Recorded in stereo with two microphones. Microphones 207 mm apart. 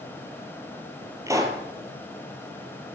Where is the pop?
15° right (ahead or behind), 2.5 m.